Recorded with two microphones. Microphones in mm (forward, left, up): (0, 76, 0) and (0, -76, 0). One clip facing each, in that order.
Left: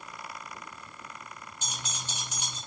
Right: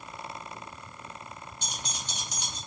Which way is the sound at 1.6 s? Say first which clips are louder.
Even; 10° left (ahead or behind).